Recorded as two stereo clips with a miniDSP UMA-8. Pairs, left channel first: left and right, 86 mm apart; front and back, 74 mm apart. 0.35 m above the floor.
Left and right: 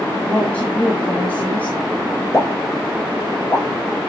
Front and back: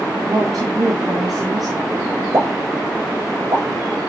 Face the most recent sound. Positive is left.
turn(degrees=145)